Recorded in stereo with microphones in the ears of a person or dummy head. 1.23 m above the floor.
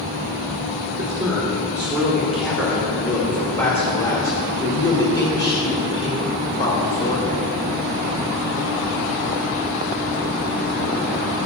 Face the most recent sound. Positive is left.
turn(degrees=30)  # may be behind; listen again after turning